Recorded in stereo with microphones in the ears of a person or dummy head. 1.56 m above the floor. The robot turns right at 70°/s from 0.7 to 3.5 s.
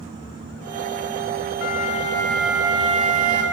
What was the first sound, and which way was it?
A flute, 120° left.